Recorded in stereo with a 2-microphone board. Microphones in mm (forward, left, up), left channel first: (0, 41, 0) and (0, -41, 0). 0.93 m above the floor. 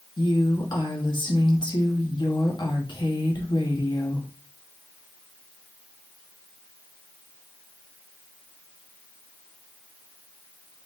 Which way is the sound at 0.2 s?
65° left (ahead or behind).